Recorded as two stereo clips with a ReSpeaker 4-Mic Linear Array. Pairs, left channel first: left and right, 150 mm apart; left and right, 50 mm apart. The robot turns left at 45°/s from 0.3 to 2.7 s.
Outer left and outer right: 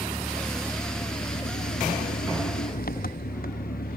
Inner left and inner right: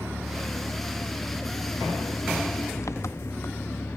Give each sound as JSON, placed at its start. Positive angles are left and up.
{"t": 0.0, "sound": "an engine running", "azimuth_deg": -175}